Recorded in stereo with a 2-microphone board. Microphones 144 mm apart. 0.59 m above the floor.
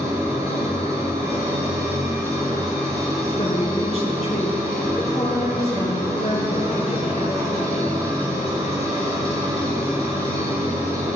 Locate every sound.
0.0 s an engine running: 25° right (ahead or behind), 5.5 m
3.4 s a woman speaking: 45° left (ahead or behind), 4 m